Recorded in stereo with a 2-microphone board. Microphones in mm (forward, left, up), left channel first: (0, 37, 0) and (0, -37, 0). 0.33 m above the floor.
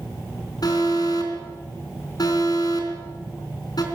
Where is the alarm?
55° left (ahead or behind), 4 m.